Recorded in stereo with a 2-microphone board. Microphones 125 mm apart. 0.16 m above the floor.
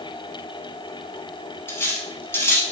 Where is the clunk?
I don't hear a clunk.